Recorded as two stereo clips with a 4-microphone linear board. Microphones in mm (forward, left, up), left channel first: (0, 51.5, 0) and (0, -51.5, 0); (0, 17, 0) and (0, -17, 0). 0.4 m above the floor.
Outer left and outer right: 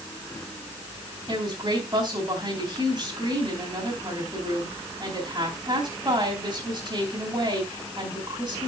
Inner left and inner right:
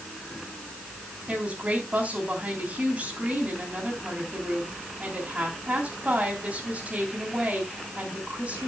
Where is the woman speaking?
40° right (ahead or behind), 3.5 m.